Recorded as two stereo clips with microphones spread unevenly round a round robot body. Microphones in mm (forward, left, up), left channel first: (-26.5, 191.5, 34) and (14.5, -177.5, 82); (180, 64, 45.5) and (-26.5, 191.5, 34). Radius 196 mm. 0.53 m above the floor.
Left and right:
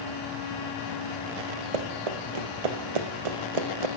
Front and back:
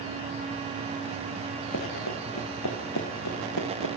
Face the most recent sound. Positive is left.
turn(degrees=-80)